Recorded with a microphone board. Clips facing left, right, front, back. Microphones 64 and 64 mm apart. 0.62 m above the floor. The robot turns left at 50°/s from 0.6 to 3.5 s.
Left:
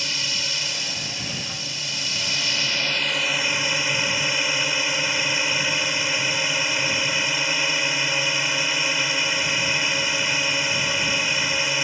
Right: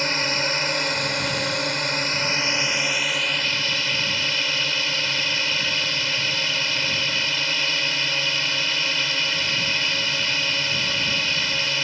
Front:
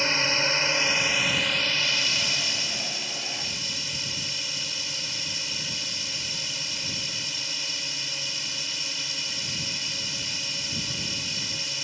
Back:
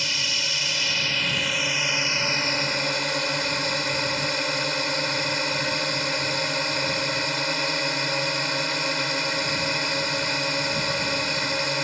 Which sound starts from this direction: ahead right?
A drone, at 0.0 s.